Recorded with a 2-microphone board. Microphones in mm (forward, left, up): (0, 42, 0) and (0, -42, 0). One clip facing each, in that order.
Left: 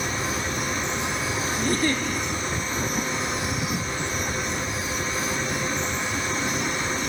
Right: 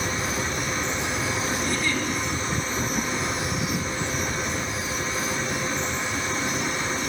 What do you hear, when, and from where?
1.6 s a giggle: 45° left (ahead or behind), 2.5 m